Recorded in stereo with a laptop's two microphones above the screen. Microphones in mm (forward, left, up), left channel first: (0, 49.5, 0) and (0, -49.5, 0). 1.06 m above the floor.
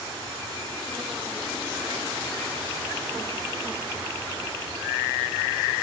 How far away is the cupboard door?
No cupboard door in this recording.